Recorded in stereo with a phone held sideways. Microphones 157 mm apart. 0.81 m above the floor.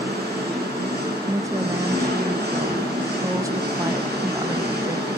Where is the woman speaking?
20° right (ahead or behind), 0.6 m.